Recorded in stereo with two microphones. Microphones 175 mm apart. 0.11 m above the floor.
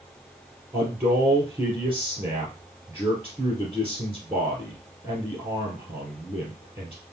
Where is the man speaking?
20° right (ahead or behind), 2 m.